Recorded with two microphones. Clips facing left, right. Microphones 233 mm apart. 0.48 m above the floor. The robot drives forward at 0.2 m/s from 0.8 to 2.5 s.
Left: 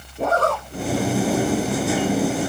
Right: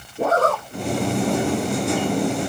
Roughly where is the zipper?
Centre.